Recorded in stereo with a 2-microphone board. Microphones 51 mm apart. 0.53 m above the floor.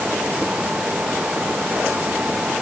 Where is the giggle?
No giggle in this recording.